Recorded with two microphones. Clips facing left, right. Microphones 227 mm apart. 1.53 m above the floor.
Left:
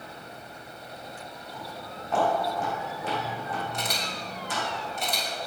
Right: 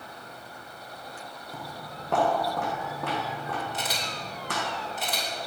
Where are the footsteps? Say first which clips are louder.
Even; 60° right (ahead or behind), 4.5 m; by 4.6 s 70° right (ahead or behind), 6 m.